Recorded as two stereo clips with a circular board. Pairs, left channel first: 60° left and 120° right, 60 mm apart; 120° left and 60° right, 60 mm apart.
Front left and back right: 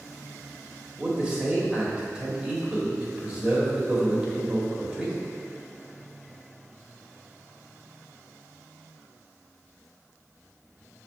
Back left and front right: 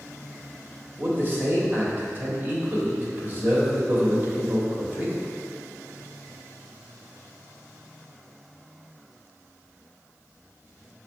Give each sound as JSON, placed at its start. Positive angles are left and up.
{"t": 1.0, "sound": "a man speaking", "azimuth_deg": -55, "distance_m": 1.4}